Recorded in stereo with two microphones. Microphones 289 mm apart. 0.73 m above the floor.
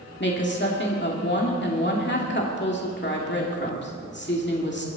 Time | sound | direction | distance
0.2 | a woman speaking | 40° left (ahead or behind) | 2 m